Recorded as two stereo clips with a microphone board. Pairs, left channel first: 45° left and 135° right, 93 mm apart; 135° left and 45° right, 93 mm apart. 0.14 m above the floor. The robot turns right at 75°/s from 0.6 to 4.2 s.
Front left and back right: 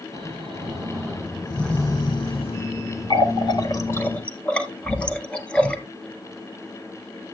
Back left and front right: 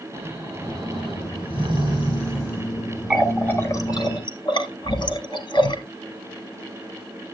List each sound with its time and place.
0.1 s snoring: 110° right, 6 m; by 2.7 s 45° left, 6 m
3.1 s a running tap: 40° left, 1.6 m; by 5.8 s 120° left, 1.6 m